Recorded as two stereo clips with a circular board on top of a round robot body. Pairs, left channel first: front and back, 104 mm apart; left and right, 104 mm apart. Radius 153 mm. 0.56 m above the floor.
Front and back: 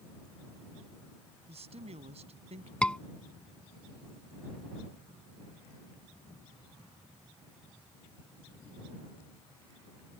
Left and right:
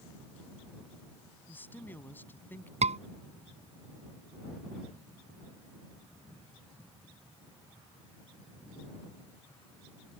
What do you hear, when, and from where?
1.5 s a man speaking: 165° left
2.8 s a scream: 80° right